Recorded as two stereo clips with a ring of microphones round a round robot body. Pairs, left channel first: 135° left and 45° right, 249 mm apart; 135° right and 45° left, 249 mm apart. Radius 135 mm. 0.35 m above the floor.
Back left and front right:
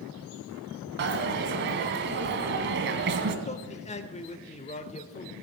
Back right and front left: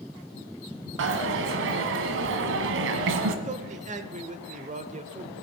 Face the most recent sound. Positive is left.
turn(degrees=90)